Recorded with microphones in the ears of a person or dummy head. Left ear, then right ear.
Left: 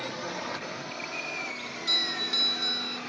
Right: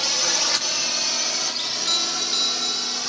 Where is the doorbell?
30° right (ahead or behind).